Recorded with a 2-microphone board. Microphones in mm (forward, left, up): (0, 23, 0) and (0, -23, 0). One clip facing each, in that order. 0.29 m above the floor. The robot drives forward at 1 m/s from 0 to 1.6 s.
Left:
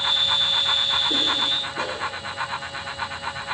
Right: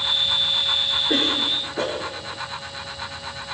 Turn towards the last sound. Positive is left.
turn(degrees=-45)  # may be behind; listen again after turning